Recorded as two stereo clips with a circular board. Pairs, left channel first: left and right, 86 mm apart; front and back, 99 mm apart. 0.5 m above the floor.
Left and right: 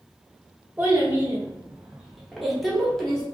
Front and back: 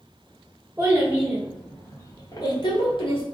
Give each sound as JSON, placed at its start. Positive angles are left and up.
{"t": 0.8, "sound": "a child speaking", "azimuth_deg": -140, "distance_m": 0.7}